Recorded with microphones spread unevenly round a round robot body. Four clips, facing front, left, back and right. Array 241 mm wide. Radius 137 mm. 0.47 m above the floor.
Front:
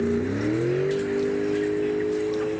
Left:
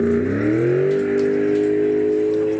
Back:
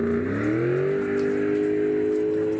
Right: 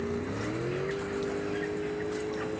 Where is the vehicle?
105° left; by 2.6 s 120° left.